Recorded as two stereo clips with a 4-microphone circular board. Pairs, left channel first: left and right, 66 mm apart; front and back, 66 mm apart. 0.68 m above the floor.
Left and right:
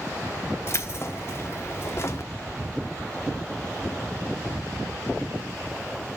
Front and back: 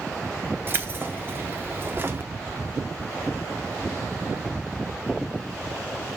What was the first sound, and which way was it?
Keys jangling, 130° left.